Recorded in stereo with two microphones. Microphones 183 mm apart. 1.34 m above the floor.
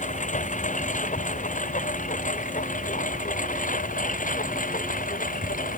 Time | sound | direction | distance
0.0 | a lawn mower | 45° left (ahead or behind) | ?